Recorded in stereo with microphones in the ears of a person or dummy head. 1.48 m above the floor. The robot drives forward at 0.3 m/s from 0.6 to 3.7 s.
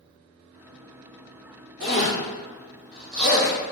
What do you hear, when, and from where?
1.8 s a zipper: 60° right (ahead or behind), 1.5 m; by 3.5 s 45° right (ahead or behind), 1.8 m